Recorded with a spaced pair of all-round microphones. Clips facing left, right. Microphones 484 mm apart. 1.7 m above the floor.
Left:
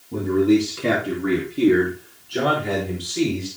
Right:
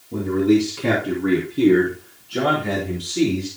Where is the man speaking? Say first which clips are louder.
Even; 5° left (ahead or behind), 3 m; by 3.5 s 30° right (ahead or behind), 5.5 m.